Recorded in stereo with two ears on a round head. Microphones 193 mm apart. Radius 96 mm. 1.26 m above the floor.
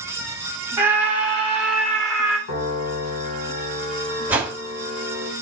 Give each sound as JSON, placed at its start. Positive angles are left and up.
{"t": 0.8, "sound": "a scream", "side_deg": -10, "distance_m": 4.5}
{"t": 2.5, "sound": "a piano", "side_deg": 70, "distance_m": 2.5}
{"t": 4.3, "sound": "a whoosh", "side_deg": -10, "distance_m": 1.5}